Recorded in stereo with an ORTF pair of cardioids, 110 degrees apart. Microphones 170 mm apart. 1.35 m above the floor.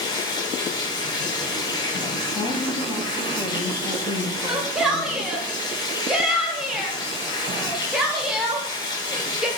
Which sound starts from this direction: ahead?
A shout, at 4.4 s.